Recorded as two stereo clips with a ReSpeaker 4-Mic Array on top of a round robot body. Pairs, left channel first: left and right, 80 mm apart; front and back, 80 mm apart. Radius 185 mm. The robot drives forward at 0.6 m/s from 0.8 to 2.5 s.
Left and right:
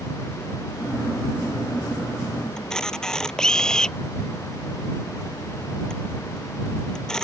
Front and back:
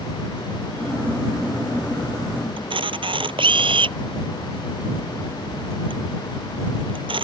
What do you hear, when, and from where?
2.6 s a camera shutter: 170° left